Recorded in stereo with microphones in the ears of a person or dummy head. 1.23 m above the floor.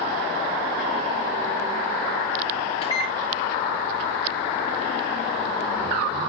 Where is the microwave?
35° left (ahead or behind), 2.0 m.